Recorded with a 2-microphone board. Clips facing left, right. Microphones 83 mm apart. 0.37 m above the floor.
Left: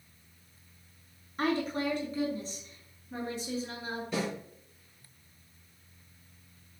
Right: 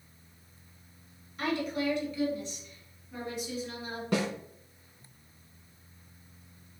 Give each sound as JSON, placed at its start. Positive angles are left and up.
{"t": 1.4, "sound": "a woman speaking", "side_deg": 40, "distance_m": 4.0}
{"t": 4.1, "sound": "a snare drum", "side_deg": -70, "distance_m": 3.5}